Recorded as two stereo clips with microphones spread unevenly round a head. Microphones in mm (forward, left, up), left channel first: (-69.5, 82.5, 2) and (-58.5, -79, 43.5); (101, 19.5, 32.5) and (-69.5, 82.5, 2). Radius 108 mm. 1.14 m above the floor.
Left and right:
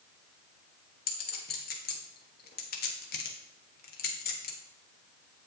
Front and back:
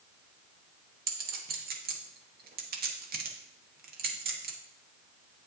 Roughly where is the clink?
Behind left.